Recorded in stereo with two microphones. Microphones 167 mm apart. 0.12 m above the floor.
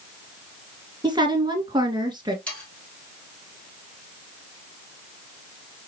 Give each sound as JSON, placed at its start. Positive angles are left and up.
{"t": 1.0, "sound": "a woman speaking", "side_deg": -25, "distance_m": 1.6}
{"t": 2.5, "sound": "sawing", "side_deg": 5, "distance_m": 2.5}